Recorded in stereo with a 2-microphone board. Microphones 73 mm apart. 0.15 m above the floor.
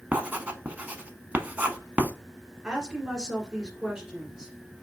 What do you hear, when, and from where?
0.1 s writing: 20° right (ahead or behind), 0.5 m
2.6 s a woman speaking: 10° right (ahead or behind), 1.4 m